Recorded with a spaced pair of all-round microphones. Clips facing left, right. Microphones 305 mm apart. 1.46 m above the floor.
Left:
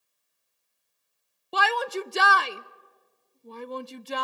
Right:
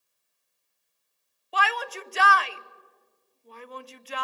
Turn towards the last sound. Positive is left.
turn(degrees=50)  # may be behind; listen again after turning